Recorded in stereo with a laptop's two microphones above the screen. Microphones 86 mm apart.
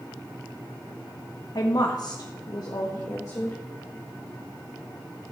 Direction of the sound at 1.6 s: 55° left (ahead or behind).